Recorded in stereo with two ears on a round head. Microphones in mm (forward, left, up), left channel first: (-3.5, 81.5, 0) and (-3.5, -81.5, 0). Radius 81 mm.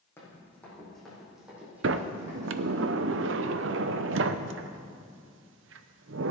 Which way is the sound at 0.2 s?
15° left (ahead or behind).